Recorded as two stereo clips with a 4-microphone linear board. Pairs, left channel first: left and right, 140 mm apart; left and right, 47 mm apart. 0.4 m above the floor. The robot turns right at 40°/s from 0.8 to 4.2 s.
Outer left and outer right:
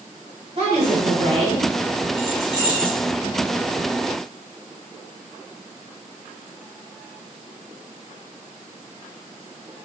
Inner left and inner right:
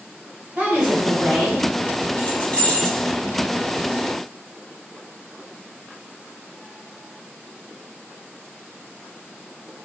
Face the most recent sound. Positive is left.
turn(degrees=-145)